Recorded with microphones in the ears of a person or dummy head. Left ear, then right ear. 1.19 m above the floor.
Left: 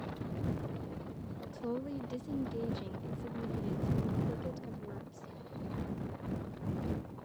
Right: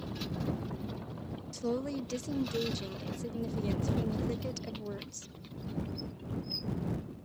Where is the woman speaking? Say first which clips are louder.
Right 5 dB; 75° right (ahead or behind).